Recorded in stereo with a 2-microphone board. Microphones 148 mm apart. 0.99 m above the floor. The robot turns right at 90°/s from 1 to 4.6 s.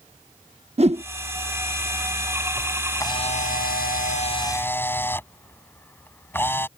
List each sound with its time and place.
0.8 s a whoosh: 45° right (ahead or behind)
3.0 s a camera shutter: 20° left; by 6.7 s 165° left